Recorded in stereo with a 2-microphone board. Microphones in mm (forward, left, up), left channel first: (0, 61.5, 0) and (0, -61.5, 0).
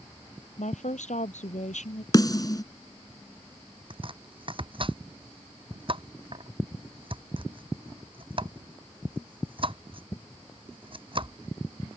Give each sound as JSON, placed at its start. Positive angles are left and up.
{"t": 0.6, "sound": "a woman speaking", "side_deg": 75}
{"t": 2.1, "sound": "a snare drum", "side_deg": 30}
{"t": 3.9, "sound": "chopping", "side_deg": -45}